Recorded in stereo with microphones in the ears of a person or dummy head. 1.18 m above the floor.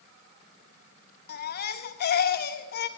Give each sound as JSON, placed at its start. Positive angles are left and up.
{"t": 1.3, "sound": "a baby crying", "side_deg": 50, "distance_m": 1.2}